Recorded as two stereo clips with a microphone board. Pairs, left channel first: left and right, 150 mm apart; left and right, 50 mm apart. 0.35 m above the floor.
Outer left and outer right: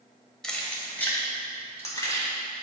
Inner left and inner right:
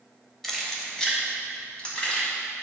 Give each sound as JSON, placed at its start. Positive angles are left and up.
{"t": 0.4, "sound": "keys jangling", "side_deg": 5, "distance_m": 1.2}